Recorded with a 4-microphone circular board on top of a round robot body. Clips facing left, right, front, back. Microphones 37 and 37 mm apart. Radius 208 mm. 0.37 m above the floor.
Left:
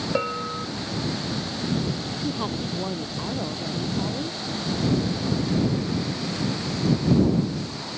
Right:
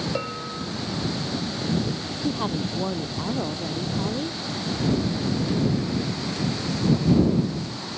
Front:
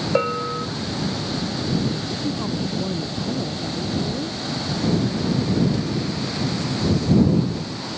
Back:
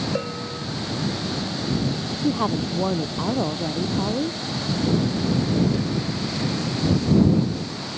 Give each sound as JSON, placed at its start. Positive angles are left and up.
{"t": 0.1, "sound": "a bell", "azimuth_deg": 20}
{"t": 2.2, "sound": "a woman speaking", "azimuth_deg": -175}